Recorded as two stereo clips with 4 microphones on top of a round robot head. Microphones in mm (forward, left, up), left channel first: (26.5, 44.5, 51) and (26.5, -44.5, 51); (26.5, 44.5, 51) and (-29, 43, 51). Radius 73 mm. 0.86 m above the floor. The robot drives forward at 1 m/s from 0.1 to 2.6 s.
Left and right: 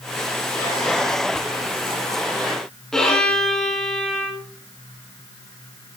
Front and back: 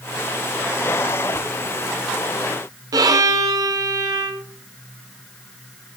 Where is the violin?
175° left, 2.5 m.